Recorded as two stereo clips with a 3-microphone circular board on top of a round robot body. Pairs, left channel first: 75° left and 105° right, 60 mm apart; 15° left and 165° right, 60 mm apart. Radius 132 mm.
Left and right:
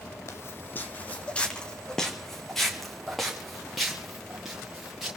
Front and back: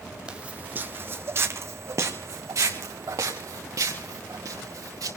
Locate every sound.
0.3 s footsteps: 120° left, 1.1 m; by 5.1 s 170° left, 4.5 m